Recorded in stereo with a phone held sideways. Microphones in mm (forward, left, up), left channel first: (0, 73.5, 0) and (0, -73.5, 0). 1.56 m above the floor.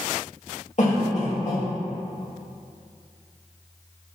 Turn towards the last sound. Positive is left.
turn(degrees=55)  # may be behind; listen again after turning